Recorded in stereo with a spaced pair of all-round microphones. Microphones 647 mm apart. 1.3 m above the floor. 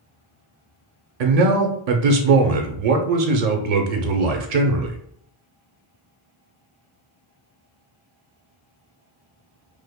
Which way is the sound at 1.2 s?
75° right (ahead or behind).